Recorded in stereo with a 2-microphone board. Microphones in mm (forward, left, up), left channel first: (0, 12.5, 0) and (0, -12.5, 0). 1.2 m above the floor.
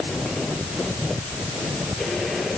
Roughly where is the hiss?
I don't hear a hiss.